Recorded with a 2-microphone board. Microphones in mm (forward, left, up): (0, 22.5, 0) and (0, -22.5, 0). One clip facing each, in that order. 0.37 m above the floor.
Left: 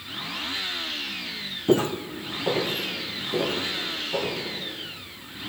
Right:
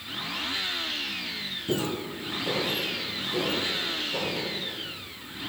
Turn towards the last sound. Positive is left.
turn(degrees=25)  # may be behind; listen again after turning